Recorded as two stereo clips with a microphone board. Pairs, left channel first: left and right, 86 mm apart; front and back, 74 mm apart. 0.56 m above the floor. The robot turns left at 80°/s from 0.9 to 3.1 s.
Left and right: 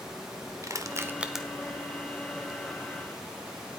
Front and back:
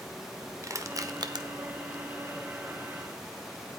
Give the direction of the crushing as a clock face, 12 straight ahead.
5 o'clock.